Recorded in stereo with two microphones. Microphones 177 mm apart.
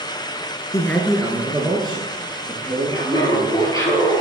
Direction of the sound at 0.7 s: 15° left (ahead or behind).